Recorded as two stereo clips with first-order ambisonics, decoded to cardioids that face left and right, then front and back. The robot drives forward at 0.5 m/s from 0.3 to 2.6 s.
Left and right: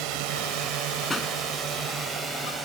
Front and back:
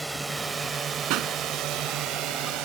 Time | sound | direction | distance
0.0 | a drone | 95° right | ?
1.1 | a pop | 165° left | ?